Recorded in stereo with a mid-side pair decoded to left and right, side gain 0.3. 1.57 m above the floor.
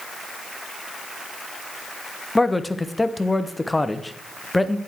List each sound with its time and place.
2.4 s a man speaking: 20° left, 0.7 m